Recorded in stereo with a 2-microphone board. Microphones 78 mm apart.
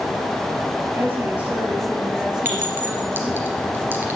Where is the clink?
25° right (ahead or behind), 2.5 m.